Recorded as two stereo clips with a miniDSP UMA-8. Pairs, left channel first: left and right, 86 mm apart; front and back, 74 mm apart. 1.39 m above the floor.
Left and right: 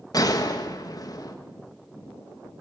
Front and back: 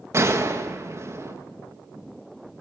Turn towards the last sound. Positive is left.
turn(degrees=130)